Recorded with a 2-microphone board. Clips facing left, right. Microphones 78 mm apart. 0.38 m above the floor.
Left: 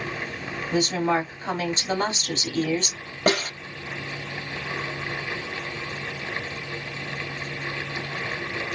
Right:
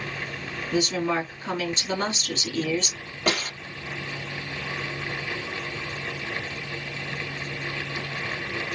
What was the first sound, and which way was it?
A woman speaking, 40° left (ahead or behind).